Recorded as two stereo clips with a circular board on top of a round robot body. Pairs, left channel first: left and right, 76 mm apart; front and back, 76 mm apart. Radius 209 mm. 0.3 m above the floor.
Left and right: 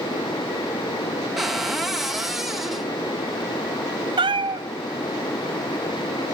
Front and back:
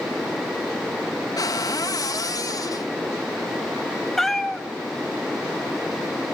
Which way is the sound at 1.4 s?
5° right.